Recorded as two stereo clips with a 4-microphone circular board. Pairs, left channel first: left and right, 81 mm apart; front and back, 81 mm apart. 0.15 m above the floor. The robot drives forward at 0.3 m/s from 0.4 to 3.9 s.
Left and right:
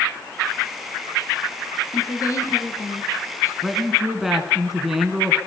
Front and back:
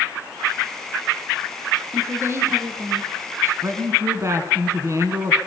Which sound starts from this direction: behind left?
A woman speaking, at 1.9 s.